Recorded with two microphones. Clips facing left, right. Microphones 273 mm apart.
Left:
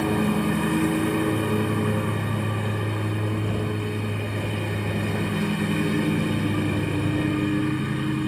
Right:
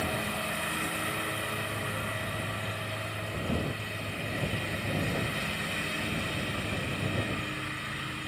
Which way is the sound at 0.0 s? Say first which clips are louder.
Left 13 dB; 65° left (ahead or behind).